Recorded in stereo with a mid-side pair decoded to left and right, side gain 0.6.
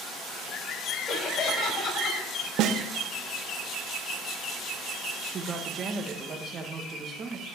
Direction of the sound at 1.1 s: 35° left.